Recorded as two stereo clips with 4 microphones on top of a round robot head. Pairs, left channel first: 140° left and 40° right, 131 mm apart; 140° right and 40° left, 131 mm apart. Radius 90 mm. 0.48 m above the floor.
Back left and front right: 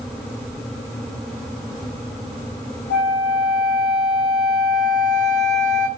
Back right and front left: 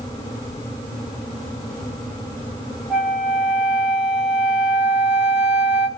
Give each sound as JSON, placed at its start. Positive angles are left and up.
{"t": 2.9, "sound": "a flute", "azimuth_deg": 125, "distance_m": 2.0}